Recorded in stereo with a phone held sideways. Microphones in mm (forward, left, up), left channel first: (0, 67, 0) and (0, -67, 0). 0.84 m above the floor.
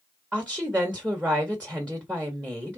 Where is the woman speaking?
10° right (ahead or behind), 1.3 m.